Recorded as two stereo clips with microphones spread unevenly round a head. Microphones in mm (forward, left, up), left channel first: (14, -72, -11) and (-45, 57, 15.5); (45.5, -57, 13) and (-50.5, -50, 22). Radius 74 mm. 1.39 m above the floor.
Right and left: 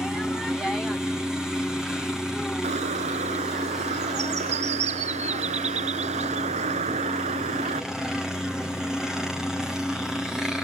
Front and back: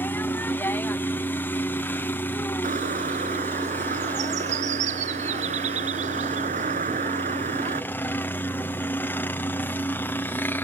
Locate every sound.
0.0 s a helicopter: 10° left
2.6 s a bird: 160° left